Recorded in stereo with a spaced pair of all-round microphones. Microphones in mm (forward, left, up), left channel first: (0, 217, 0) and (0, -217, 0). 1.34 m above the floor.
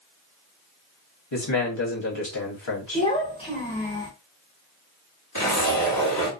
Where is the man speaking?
80° left, 1.1 m.